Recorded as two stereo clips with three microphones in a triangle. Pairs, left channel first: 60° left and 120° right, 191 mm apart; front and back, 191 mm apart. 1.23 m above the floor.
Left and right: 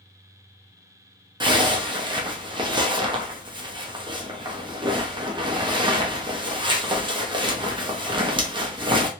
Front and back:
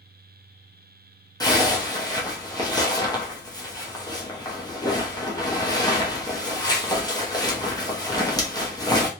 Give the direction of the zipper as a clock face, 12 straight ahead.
2 o'clock.